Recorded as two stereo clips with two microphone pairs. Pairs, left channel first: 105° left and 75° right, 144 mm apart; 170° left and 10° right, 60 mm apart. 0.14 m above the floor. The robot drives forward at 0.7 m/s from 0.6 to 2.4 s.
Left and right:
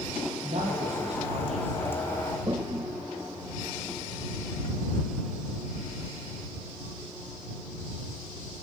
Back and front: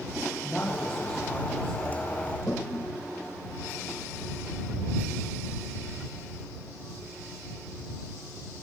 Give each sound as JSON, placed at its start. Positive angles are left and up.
{"t": 0.4, "sound": "a man speaking", "azimuth_deg": -110, "distance_m": 6.0}
{"t": 2.5, "sound": "a toilet flushing", "azimuth_deg": -140, "distance_m": 1.5}